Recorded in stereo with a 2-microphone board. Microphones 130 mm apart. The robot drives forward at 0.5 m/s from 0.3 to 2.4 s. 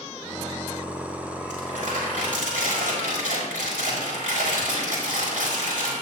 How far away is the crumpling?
About 6 m.